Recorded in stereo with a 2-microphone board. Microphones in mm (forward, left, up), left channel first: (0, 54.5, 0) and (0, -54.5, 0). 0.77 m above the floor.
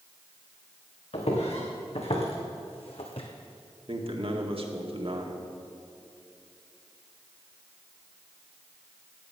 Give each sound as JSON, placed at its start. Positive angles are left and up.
{"t": 1.1, "sound": "footsteps", "side_deg": 75, "distance_m": 3.5}
{"t": 3.9, "sound": "a man speaking", "side_deg": -60, "distance_m": 1.7}